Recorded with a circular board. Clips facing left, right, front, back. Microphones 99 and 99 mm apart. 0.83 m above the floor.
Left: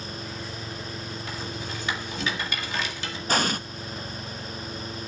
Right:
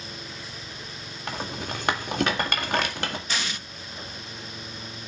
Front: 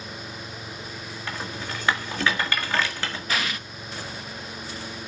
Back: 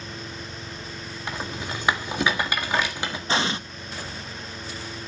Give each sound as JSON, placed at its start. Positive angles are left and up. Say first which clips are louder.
{"t": 1.3, "sound": "a rattle", "louder": "right 6 dB, back 2 dB", "azimuth_deg": -110, "distance_m": 1.7}
{"t": 3.3, "sound": "an explosion", "louder": "left 7 dB, back 5 dB", "azimuth_deg": 125, "distance_m": 0.5}